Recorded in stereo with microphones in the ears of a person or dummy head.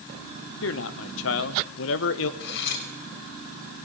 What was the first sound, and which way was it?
A man speaking, 75° left (ahead or behind).